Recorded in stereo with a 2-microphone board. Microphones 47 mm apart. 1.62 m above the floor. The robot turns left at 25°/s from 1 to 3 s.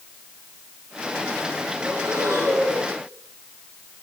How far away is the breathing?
About 7.5 m.